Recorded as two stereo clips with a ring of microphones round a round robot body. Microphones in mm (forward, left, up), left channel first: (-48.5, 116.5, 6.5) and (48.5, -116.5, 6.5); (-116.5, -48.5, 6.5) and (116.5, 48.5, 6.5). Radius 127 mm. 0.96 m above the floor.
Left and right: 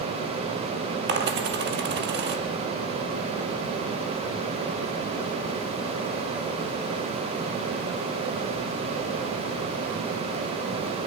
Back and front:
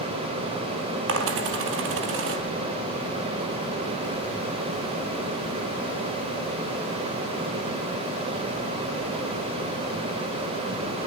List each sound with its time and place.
1.1 s a dropped coin: 20° right, 3.5 m